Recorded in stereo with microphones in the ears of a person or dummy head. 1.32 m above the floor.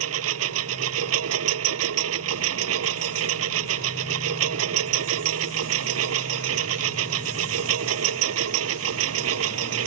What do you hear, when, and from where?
0.0 s a lawn mower: 80° right